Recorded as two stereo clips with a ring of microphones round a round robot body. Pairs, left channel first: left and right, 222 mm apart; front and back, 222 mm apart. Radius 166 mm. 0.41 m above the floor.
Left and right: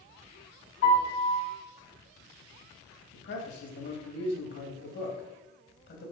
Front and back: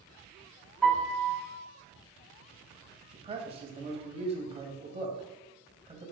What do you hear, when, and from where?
0.8 s a piano: 85° left, 3 m
3.1 s a man speaking: 120° left, 2 m